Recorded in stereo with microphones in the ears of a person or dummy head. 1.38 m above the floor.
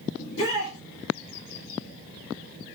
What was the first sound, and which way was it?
A shout, 70° left (ahead or behind).